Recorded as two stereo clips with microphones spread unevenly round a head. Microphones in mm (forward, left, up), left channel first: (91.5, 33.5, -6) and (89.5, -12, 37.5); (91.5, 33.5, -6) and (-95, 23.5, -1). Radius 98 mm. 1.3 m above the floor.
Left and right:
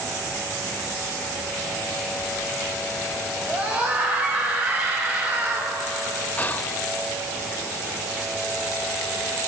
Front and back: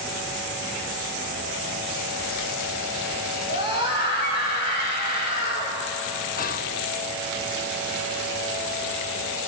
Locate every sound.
3.5 s a scream: 40° right, 7.5 m; by 5.8 s 45° right, 5.5 m
6.4 s whispering: 45° left, 0.9 m